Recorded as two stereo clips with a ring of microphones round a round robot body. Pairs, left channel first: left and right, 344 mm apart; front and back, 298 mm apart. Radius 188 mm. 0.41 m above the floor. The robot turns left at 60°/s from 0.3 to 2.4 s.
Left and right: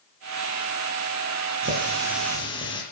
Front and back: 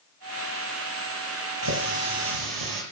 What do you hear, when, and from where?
1.6 s a running tap: 145° right, 7 m; by 2.8 s 165° left, 7 m